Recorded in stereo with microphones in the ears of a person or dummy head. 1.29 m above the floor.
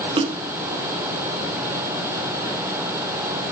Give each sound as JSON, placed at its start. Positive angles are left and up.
{"t": 0.2, "sound": "a splash", "side_deg": -35, "distance_m": 0.5}